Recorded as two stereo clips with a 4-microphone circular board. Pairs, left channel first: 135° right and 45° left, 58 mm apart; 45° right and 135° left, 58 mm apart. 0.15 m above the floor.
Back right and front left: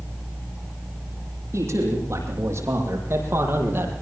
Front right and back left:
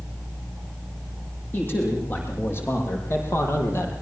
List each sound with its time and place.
1.5 s a man speaking: 10° left, 9 m; by 3.9 s 5° right, 6 m